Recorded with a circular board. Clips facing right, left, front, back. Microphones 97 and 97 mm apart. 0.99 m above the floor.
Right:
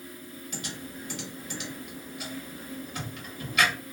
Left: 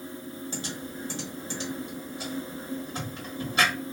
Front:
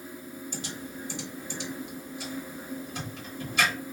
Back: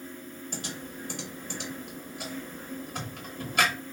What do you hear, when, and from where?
0.5 s typing on a keyboard: 145° left, 1.0 m